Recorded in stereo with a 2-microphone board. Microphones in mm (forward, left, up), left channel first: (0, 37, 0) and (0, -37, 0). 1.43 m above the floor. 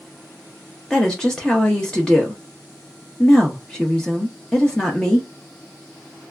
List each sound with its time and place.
0.9 s a woman speaking: 10° left (ahead or behind), 0.5 m